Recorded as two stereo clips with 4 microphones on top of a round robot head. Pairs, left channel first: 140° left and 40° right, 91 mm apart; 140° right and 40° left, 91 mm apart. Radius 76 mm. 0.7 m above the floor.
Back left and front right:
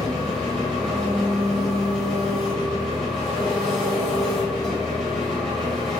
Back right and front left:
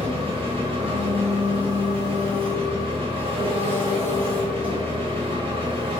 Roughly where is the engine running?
Ahead left.